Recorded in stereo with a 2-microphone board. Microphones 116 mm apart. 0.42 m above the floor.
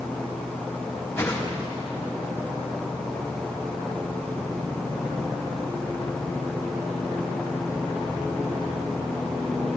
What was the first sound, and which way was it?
A whoosh, 20° left (ahead or behind).